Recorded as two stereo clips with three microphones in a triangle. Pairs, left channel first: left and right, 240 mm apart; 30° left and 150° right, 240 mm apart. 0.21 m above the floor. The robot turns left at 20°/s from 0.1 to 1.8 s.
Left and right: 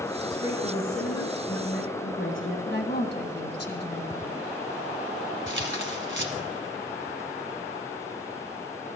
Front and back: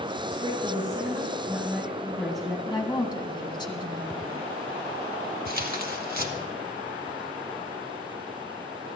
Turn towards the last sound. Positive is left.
turn(degrees=-110)